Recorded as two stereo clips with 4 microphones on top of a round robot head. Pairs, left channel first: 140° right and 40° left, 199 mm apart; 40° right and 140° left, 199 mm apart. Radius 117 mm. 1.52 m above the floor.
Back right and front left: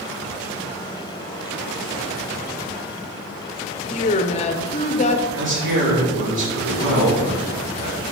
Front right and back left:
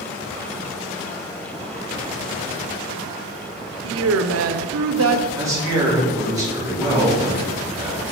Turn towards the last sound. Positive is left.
turn(degrees=65)